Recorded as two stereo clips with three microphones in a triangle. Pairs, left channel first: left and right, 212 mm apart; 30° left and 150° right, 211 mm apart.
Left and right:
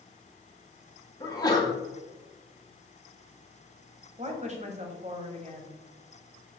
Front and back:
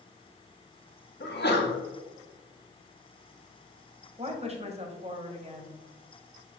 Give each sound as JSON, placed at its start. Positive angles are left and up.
{"t": 1.2, "sound": "a sneeze", "azimuth_deg": 25, "distance_m": 2.0}
{"t": 4.2, "sound": "a woman speaking", "azimuth_deg": -115, "distance_m": 1.6}